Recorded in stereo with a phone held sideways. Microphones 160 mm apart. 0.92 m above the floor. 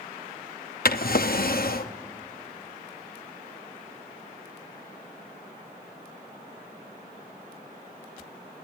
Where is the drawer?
70° left (ahead or behind), 0.6 m.